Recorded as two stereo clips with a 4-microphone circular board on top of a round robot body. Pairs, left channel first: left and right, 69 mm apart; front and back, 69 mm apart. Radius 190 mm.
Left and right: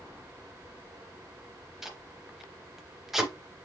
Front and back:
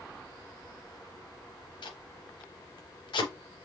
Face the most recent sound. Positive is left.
turn(degrees=-5)